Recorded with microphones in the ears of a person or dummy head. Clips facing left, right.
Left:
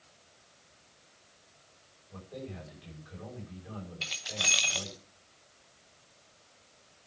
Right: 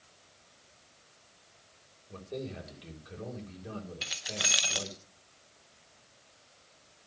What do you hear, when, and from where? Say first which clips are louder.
2.1 s a man speaking: right 4 dB; 55° right (ahead or behind), 6 m
4.0 s keys jangling: right 1 dB; 10° right (ahead or behind), 0.7 m